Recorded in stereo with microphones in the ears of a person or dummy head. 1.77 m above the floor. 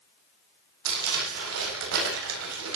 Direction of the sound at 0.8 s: 90° right.